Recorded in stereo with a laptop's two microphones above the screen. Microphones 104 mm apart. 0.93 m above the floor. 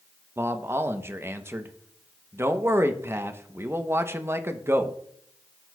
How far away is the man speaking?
About 0.8 m.